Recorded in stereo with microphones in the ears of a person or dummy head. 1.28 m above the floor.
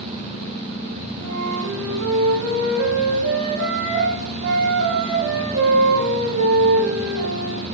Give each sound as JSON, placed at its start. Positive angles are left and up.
{"t": 1.2, "sound": "a flute", "side_deg": -70, "distance_m": 9.0}